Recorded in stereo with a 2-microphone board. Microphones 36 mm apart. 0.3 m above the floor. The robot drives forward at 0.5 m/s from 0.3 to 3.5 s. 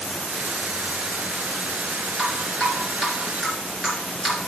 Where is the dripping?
5° left (ahead or behind), 3.5 m.